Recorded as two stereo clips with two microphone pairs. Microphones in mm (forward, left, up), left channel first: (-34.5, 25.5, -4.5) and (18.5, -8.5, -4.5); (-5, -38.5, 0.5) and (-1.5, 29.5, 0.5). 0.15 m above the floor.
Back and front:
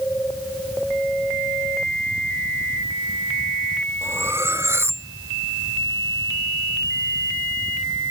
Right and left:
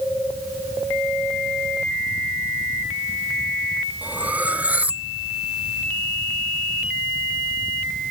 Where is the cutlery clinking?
15° left.